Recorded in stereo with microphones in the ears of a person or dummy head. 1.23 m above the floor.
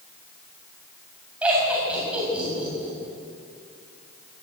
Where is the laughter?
10° right (ahead or behind), 8 m.